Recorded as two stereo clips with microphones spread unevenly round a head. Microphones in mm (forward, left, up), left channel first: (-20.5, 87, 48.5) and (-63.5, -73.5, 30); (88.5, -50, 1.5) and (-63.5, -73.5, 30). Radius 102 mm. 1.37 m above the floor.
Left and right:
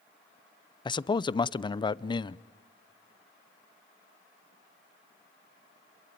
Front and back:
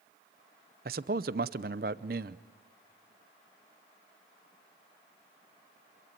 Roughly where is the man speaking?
Behind left.